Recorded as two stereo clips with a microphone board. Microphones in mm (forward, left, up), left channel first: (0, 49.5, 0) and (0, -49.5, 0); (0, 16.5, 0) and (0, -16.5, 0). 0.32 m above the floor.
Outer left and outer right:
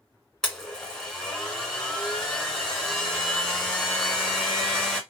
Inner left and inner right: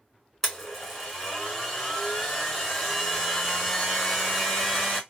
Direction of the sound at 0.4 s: 5° left (ahead or behind).